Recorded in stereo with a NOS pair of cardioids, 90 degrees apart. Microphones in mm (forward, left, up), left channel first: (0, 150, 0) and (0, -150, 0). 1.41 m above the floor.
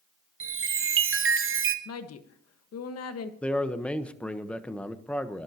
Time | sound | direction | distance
0.4 | a chime | 45° right | 1.2 m
1.9 | a woman speaking | 55° left | 1.5 m
3.4 | a man speaking | 5° left | 1.2 m